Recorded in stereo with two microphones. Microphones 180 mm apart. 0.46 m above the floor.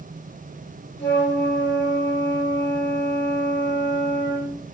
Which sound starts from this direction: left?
A flute, at 1.0 s.